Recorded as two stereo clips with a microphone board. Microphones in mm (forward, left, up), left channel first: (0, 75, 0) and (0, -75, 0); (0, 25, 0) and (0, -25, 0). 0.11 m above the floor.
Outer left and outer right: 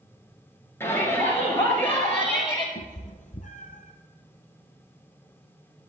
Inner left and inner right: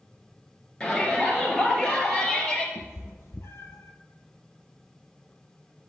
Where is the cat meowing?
60° left (ahead or behind), 1.0 m.